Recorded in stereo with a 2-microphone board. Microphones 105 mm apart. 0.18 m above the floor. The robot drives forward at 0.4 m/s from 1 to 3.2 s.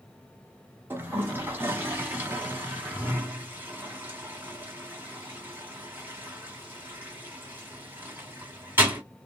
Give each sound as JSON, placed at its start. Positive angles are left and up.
{"t": 0.9, "sound": "a toilet flushing", "side_deg": -20, "distance_m": 1.7}